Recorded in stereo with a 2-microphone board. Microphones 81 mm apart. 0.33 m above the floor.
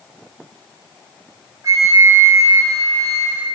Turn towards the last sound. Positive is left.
turn(degrees=-45)  # may be behind; listen again after turning